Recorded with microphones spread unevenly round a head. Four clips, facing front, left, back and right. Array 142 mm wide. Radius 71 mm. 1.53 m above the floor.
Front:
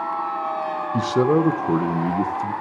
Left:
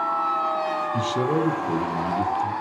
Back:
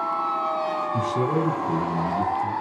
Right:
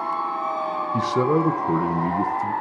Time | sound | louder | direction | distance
0.9 | a man speaking | right 5 dB, front 8 dB | 15° right | 1.6 m